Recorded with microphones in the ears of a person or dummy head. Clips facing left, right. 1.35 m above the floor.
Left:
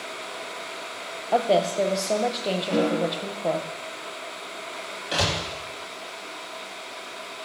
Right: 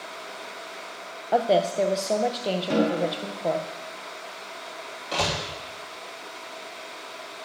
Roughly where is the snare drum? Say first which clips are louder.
Even; right.